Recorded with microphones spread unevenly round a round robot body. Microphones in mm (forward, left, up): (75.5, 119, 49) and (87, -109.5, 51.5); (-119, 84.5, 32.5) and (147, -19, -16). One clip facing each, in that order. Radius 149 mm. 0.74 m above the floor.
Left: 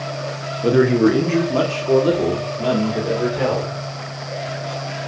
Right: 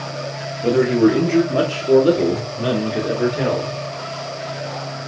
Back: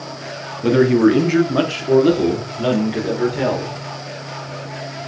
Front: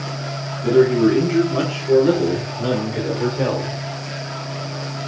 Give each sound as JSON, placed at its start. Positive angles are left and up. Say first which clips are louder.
{"t": 0.6, "sound": "a man speaking", "louder": "even, back 1 dB", "azimuth_deg": 165, "distance_m": 1.8}